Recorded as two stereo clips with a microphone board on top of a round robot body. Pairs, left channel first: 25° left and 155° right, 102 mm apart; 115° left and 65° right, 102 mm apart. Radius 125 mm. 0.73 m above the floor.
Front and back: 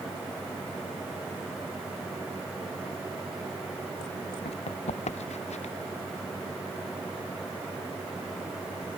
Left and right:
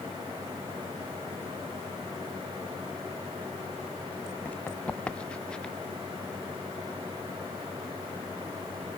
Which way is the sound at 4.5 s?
35° left.